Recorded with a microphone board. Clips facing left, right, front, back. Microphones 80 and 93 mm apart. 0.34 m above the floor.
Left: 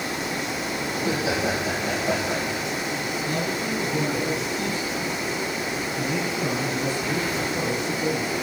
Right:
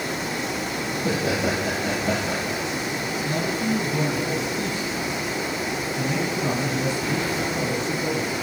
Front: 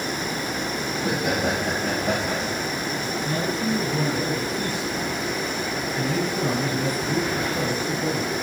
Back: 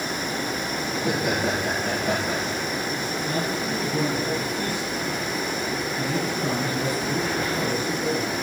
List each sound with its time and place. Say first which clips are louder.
0.9 s laughter: right 1 dB, even; 90° right, 7 m
3.2 s a man speaking: right 3 dB, front 2 dB; 50° right, 5.5 m